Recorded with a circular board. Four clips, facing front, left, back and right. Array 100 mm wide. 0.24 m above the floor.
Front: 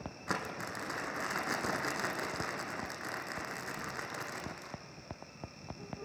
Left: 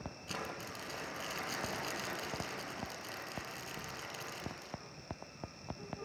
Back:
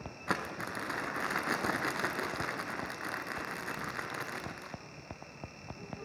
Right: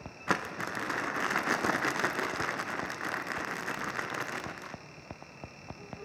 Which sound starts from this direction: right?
Crumpling, at 0.3 s.